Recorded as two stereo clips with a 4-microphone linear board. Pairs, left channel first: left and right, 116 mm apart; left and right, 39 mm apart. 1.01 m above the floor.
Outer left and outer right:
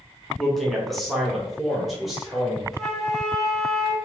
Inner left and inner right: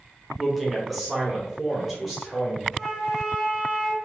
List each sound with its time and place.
0.4 s a man speaking: centre (ahead or behind), 0.9 m
2.7 s a flute: 5° left (ahead or behind), 1.1 m